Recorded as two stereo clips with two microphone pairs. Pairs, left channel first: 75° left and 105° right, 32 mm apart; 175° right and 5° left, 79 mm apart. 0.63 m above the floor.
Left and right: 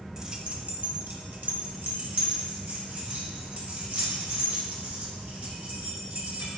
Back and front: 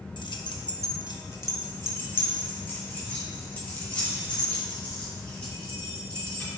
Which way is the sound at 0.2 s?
Straight behind.